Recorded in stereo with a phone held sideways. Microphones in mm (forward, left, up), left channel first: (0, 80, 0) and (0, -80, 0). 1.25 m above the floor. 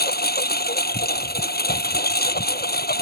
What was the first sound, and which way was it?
A lawn mower, 85° left.